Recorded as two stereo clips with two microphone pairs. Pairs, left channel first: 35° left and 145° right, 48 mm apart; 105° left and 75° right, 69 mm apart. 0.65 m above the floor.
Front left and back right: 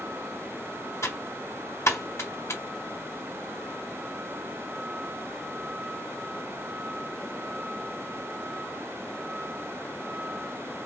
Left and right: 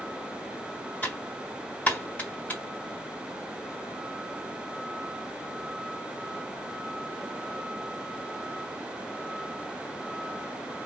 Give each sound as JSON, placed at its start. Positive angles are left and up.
{"t": 1.0, "sound": "typing on a keyboard", "azimuth_deg": 35, "distance_m": 1.5}